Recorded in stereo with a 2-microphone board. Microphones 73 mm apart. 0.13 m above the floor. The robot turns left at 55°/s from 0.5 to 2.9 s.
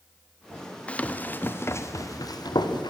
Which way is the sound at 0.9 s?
20° left (ahead or behind).